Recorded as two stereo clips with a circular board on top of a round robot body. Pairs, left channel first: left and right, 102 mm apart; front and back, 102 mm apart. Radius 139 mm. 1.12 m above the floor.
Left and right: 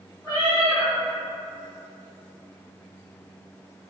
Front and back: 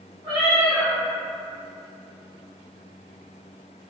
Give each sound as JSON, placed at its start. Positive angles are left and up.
{"t": 0.2, "sound": "a cat meowing", "azimuth_deg": -145, "distance_m": 1.2}